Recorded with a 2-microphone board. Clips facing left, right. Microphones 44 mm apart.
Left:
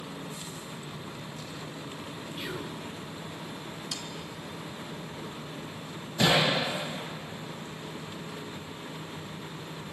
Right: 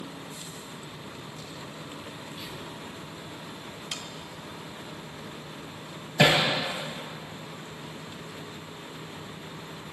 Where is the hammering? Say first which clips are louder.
Right 3 dB; 80° right, 6.5 m.